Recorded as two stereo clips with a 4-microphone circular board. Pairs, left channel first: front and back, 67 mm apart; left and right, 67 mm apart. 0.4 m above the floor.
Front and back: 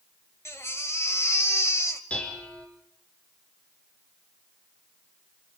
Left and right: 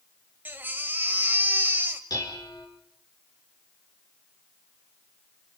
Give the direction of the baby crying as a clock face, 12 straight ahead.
1 o'clock.